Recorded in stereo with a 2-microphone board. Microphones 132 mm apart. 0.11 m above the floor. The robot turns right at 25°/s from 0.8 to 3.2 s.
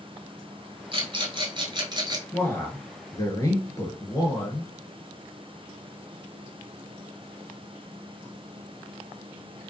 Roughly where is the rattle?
Right.